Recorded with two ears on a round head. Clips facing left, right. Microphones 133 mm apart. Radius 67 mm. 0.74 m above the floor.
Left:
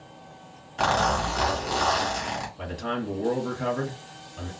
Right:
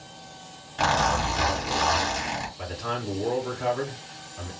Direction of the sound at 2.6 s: 55° left (ahead or behind).